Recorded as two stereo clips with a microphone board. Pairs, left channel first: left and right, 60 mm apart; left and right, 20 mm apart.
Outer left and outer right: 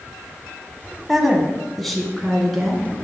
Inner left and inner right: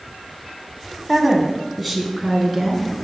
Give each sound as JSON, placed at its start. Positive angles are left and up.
{"t": 1.1, "sound": "a woman speaking", "side_deg": 0, "distance_m": 1.7}